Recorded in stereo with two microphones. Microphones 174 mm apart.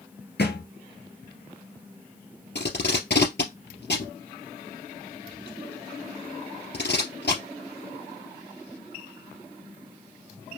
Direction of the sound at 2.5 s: 80° left.